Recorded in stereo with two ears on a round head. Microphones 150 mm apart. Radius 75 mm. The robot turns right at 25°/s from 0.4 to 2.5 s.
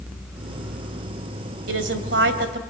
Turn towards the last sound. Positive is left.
turn(degrees=-70)  # may be behind; listen again after turning